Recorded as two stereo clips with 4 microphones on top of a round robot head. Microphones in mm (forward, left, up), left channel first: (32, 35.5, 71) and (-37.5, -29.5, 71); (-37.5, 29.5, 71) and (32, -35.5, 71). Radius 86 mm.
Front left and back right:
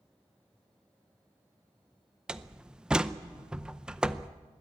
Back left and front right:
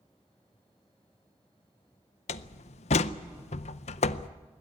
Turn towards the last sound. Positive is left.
turn(degrees=140)